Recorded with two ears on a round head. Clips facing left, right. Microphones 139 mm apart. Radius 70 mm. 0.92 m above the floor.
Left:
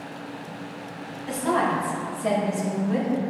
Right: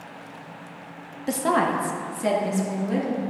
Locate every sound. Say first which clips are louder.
1.3 s a woman speaking: right 1 dB; 45° right (ahead or behind), 0.9 m; by 3.1 s 75° right (ahead or behind), 2.5 m